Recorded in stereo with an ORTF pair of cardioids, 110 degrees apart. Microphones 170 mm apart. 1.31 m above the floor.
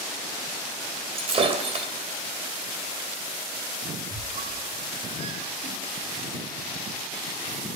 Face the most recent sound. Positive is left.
turn(degrees=-40)